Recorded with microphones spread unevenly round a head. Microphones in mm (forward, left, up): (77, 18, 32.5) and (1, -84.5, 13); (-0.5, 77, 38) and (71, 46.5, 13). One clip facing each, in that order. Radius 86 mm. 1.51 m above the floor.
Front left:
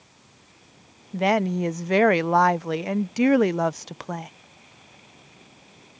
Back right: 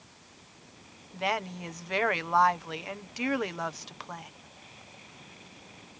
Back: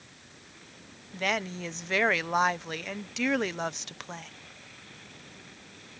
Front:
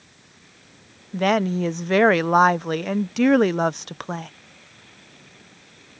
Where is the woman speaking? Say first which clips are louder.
Front left 10 dB, front 11 dB; 15° left.